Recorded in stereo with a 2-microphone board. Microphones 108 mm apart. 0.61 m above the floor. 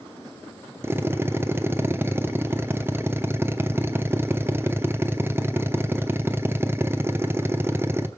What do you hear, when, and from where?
0.8 s a drill: 20° right (ahead or behind), 0.8 m